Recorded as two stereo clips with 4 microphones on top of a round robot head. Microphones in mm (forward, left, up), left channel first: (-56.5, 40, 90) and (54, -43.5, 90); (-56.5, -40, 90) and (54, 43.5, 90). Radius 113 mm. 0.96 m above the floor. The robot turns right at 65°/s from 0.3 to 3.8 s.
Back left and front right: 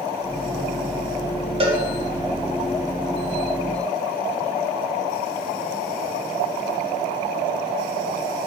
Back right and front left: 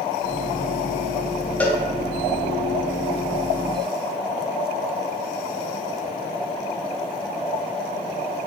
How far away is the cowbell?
About 0.7 m.